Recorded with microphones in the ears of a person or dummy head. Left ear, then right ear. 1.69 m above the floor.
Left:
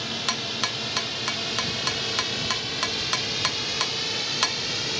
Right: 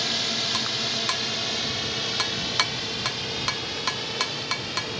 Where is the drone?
30° right (ahead or behind); by 5.0 s 15° left (ahead or behind).